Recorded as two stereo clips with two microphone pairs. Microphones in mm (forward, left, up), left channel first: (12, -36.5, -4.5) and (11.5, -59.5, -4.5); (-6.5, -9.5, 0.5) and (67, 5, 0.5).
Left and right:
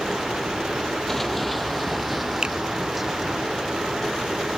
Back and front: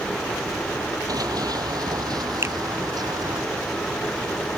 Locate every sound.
1.1 s running footsteps: 10° left; by 3.4 s 15° right
2.4 s a finger snap: 45° right